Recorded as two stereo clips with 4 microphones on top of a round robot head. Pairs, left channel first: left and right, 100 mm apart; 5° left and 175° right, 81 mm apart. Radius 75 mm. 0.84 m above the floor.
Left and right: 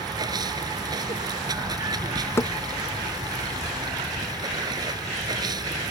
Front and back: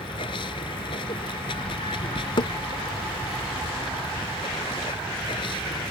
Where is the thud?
25° left.